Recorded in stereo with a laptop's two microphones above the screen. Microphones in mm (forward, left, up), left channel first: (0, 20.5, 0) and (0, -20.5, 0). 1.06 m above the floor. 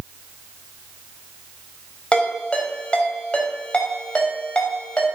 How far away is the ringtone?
About 3.5 m.